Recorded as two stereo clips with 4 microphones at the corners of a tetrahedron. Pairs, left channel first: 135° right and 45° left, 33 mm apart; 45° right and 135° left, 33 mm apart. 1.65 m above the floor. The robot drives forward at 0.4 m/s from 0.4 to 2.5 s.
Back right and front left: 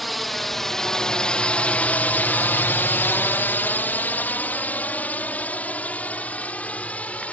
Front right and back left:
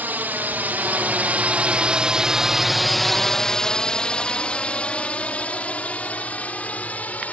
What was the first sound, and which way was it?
A drone, 135° left.